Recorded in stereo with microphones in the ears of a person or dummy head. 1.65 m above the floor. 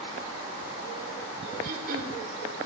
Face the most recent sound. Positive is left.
turn(degrees=-45)  # may be behind; listen again after turning